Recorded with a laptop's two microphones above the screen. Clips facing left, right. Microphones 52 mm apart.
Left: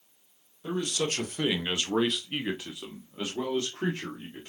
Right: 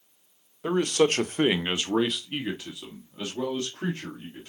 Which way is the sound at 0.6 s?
70° right (ahead or behind).